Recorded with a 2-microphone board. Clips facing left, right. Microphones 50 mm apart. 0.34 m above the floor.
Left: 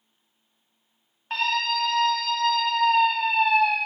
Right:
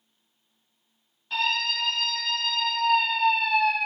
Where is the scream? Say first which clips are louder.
Left 2 dB; 50° left (ahead or behind), 2 m.